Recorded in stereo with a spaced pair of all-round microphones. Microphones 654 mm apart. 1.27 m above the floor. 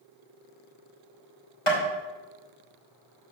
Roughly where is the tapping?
Left.